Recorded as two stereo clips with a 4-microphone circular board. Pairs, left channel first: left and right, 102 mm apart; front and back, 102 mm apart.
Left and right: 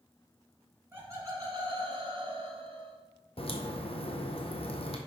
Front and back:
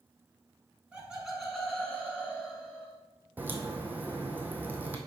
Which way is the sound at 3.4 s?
110° left.